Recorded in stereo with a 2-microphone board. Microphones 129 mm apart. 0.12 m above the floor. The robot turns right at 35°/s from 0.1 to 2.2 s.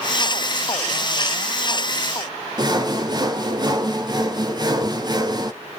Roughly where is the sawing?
Right.